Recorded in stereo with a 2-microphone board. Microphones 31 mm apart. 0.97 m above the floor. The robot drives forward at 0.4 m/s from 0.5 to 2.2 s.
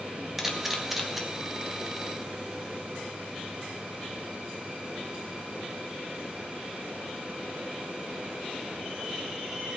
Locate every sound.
0.4 s a camera shutter: 5° right (ahead or behind), 1.8 m